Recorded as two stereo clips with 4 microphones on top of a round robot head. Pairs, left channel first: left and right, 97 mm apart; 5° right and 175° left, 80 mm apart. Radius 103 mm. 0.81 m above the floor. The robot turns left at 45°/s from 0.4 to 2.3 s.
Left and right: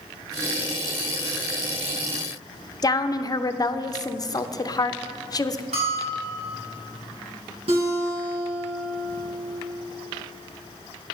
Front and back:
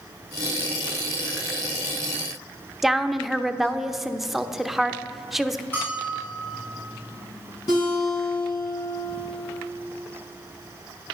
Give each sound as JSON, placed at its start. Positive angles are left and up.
{"t": 2.8, "sound": "a woman speaking", "azimuth_deg": 90, "distance_m": 0.8}
{"t": 5.7, "sound": "a bell", "azimuth_deg": -75, "distance_m": 4.5}
{"t": 7.7, "sound": "a guitar", "azimuth_deg": -50, "distance_m": 4.0}